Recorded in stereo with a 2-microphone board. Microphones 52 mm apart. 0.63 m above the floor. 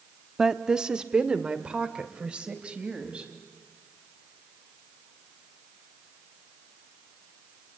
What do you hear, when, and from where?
0.4 s a woman speaking: 5° right (ahead or behind), 0.8 m; by 3.3 s 20° right (ahead or behind), 4 m